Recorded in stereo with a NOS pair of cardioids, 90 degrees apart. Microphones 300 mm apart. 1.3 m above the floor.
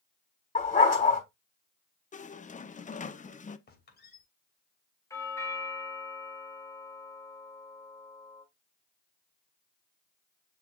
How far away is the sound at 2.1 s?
About 0.8 m.